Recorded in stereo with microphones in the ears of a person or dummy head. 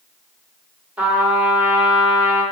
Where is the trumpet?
Centre (ahead or behind), 1.3 m.